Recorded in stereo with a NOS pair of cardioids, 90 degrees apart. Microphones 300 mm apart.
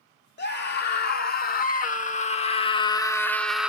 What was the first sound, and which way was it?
A scream, 35° left.